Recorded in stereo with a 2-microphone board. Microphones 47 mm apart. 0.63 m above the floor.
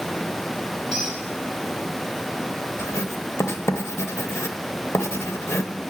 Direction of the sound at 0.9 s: 5° left (ahead or behind).